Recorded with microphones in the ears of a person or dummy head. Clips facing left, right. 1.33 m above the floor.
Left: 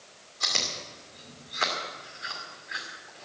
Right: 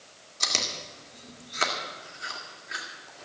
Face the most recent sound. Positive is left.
turn(degrees=-50)  # may be behind; listen again after turning